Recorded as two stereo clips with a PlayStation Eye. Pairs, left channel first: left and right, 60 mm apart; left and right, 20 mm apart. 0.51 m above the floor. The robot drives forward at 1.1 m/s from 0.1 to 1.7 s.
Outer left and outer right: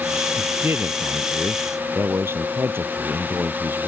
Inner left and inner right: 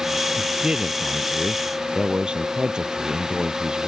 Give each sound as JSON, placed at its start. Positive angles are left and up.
{"t": 0.4, "sound": "a man speaking", "side_deg": -45}